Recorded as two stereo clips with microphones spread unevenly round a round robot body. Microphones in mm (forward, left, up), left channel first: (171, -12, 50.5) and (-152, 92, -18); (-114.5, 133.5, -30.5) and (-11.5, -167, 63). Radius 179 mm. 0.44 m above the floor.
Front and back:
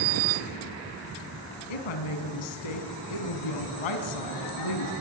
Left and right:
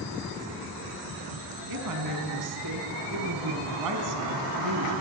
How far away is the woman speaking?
About 3.5 m.